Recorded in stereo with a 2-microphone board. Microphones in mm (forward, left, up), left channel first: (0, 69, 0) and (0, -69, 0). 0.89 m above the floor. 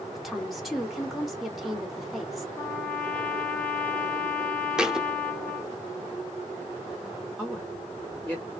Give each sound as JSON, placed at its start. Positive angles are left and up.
{"t": 0.1, "sound": "a woman speaking", "side_deg": 0, "distance_m": 2.0}
{"t": 2.5, "sound": "a trumpet", "side_deg": 10, "distance_m": 1.1}
{"t": 4.8, "sound": "a thud", "side_deg": -5, "distance_m": 0.8}
{"t": 7.4, "sound": "a woman speaking", "side_deg": 0, "distance_m": 2.0}